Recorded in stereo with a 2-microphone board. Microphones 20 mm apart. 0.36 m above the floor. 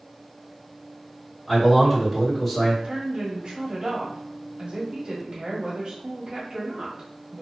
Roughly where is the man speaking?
Centre.